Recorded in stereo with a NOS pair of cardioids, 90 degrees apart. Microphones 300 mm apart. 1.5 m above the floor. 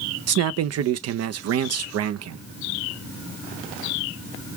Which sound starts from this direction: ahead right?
A man speaking, at 0.3 s.